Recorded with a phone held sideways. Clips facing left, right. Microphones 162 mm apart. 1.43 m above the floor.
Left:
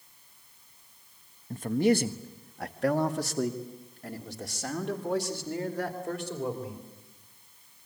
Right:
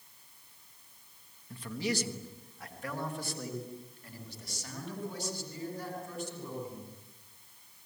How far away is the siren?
I don't hear a siren.